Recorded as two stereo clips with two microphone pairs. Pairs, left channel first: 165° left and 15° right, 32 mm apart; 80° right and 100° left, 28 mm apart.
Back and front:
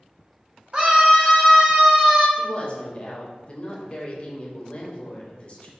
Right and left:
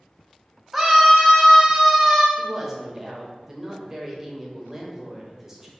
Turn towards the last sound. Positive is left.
turn(degrees=170)